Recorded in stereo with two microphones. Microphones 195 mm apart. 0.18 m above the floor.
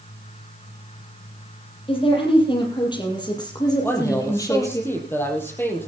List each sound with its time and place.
1.9 s a woman speaking: 30° left (ahead or behind), 7 m; by 4.8 s 15° left (ahead or behind), 6.5 m
3.8 s a man speaking: 10° left (ahead or behind), 5 m